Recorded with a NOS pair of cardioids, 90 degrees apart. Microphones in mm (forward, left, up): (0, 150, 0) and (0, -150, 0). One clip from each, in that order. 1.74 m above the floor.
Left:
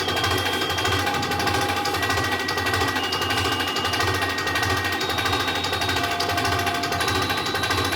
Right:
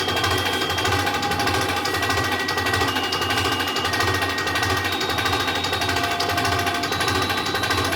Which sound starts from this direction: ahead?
An engine running, at 0.0 s.